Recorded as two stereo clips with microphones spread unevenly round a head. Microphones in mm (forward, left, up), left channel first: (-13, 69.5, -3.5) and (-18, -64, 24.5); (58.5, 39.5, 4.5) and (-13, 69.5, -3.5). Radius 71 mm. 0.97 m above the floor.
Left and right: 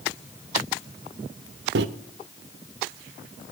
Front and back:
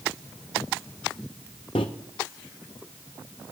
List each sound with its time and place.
1.8 s a microwave: 75° right, 0.5 m